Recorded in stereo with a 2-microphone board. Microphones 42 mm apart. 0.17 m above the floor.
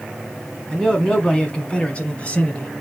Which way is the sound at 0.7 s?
20° left (ahead or behind).